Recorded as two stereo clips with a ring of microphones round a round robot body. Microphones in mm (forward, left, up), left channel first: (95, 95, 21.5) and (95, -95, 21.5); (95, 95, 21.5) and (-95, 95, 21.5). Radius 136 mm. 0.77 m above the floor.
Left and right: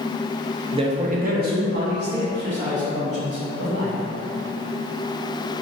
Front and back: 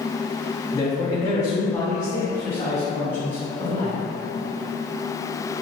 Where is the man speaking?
55° right, 0.6 m; by 4.0 s 80° right, 2.5 m.